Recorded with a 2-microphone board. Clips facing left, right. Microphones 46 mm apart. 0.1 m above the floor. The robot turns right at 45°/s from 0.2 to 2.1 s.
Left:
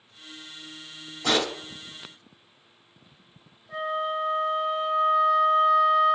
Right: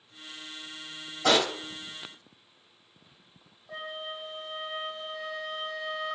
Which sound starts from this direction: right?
A pop, at 1.2 s.